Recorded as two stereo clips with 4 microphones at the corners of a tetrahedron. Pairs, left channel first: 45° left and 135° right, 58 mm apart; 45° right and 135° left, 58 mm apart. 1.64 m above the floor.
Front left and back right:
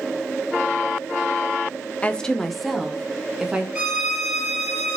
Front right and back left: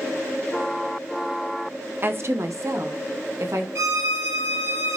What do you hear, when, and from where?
2.0 s a woman speaking: 105° left, 0.6 m; by 3.6 s 150° left, 1.9 m
3.8 s a violin: 150° left, 7 m